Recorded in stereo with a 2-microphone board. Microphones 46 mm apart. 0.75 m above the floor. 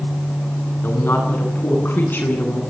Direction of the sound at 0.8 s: 50° left (ahead or behind).